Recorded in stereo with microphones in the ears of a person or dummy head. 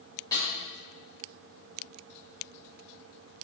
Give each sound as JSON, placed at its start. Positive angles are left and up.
{"t": 0.3, "sound": "a snare drum", "side_deg": 15, "distance_m": 3.0}